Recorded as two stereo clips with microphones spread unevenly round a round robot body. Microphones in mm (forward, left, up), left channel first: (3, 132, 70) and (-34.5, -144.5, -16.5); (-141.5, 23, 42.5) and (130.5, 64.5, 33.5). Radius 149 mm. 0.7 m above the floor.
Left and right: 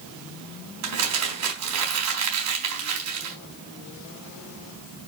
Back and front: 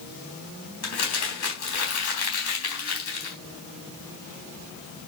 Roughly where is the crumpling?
Behind right.